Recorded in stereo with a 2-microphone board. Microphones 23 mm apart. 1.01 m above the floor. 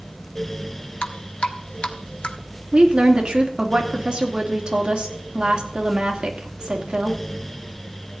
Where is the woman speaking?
40° right (ahead or behind), 2.5 m.